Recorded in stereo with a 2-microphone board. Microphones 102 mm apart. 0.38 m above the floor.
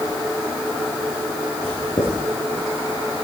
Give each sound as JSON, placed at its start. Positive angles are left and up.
{"t": 1.6, "sound": "writing", "side_deg": 65, "distance_m": 3.5}